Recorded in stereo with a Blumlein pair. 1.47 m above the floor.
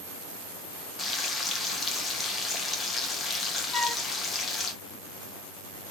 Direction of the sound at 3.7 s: 5° left.